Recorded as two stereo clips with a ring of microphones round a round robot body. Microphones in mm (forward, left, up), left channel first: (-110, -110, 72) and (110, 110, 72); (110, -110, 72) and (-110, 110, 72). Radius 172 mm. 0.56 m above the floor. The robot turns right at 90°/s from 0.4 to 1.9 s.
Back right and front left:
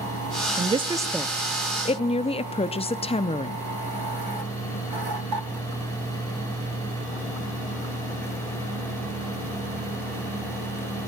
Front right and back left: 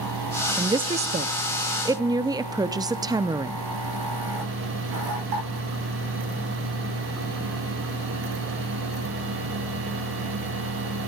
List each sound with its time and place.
0.6 s a woman speaking: 70° left, 0.6 m; by 3.6 s 170° right, 0.6 m